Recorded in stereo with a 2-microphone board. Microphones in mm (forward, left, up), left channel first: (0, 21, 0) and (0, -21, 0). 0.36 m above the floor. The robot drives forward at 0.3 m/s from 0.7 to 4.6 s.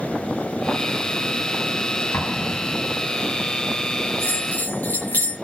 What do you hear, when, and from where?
2.1 s an explosion: 65° left (ahead or behind), 3.5 m
4.2 s a bell: 45° left (ahead or behind), 6.5 m